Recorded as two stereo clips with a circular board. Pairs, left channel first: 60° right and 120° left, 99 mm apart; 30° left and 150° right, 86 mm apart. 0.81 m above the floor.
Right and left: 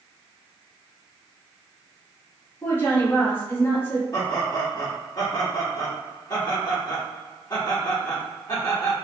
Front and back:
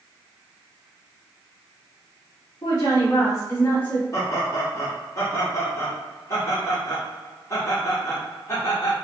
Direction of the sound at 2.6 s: 5° left.